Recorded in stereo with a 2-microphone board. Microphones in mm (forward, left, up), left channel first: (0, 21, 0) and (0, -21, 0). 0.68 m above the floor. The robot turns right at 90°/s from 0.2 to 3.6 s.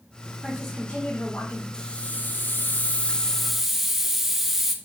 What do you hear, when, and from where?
0.4 s a woman speaking: 10° right, 2.5 m; by 1.6 s 100° left, 2.5 m
1.7 s a hiss: 25° left, 0.8 m; by 4.7 s 170° right, 0.8 m